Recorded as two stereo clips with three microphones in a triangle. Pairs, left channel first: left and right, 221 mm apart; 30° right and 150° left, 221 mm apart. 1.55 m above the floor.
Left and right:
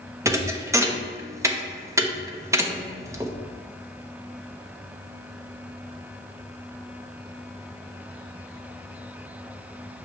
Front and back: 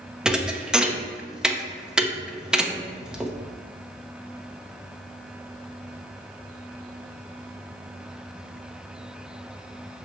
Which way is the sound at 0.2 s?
130° right.